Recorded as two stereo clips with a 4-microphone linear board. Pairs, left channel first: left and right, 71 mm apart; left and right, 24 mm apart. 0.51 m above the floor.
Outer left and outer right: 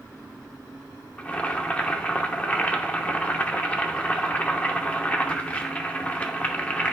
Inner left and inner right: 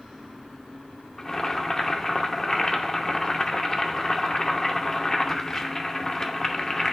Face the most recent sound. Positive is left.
turn(degrees=20)  # may be behind; listen again after turning